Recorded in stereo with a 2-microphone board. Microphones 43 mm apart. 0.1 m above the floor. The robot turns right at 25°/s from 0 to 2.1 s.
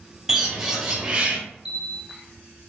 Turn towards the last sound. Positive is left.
turn(degrees=-5)  # may be behind; listen again after turning